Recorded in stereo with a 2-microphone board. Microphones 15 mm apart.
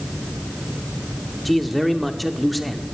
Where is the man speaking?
5° left (ahead or behind), 1.0 m.